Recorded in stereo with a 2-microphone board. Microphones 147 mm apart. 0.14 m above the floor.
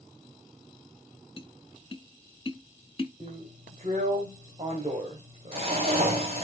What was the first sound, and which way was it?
Tapping, 40° left (ahead or behind).